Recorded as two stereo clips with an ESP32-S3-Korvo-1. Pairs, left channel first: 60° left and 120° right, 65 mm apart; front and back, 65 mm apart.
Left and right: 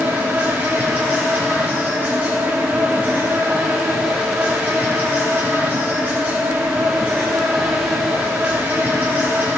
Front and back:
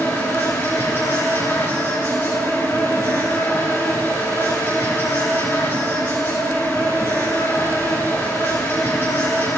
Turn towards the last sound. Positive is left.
turn(degrees=-55)